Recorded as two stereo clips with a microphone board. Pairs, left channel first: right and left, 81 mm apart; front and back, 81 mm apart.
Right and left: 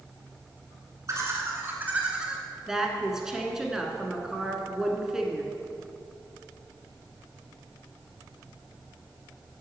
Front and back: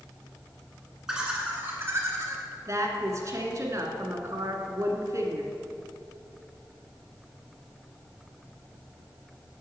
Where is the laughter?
100° left, 1.8 m; by 2.4 s 170° left, 1.9 m.